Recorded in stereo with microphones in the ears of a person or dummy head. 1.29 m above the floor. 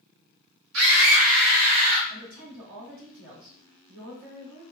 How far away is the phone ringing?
I don't hear a phone ringing.